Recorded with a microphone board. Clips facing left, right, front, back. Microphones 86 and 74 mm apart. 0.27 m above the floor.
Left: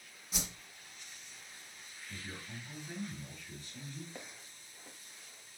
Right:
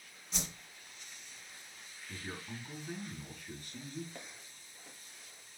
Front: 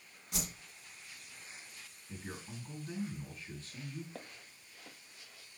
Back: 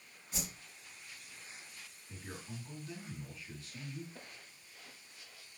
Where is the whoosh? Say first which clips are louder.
Even, front 2 dB; 5° left, 1.8 m.